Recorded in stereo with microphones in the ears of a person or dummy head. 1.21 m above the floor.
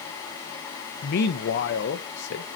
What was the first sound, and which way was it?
A man speaking, 55° left (ahead or behind).